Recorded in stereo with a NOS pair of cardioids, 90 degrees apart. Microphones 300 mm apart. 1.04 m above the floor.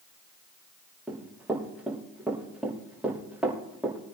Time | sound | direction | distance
1.1 | running footsteps | 5° right | 5.5 m